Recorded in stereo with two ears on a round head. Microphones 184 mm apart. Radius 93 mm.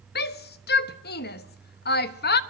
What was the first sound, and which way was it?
A shout, 55° left (ahead or behind).